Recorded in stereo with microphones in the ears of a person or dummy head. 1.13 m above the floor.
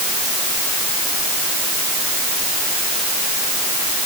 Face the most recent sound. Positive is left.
No sound to turn to.